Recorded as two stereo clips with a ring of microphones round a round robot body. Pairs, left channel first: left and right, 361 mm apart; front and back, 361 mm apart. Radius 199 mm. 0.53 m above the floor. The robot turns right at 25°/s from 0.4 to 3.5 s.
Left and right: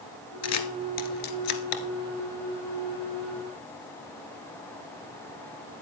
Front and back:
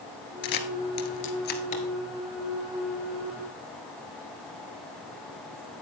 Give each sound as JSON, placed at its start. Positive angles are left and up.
{"t": 0.4, "sound": "a camera shutter", "azimuth_deg": 40, "distance_m": 2.0}